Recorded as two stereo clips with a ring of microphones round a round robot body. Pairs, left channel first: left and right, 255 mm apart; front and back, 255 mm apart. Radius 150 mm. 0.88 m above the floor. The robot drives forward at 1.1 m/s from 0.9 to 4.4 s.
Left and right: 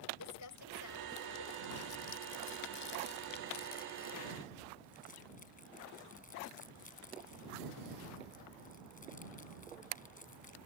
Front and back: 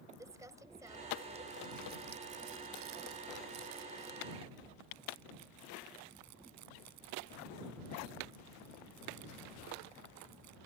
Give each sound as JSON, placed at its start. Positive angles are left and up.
{"t": 0.2, "sound": "crumpling", "azimuth_deg": 100}